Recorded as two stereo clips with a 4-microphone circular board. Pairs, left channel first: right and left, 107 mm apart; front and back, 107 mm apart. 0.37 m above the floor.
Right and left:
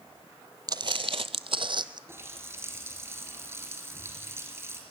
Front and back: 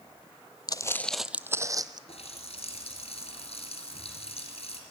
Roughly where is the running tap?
Ahead.